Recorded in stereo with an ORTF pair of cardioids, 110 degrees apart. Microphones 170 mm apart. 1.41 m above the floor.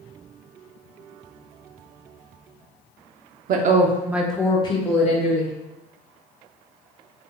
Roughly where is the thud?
I don't hear a thud.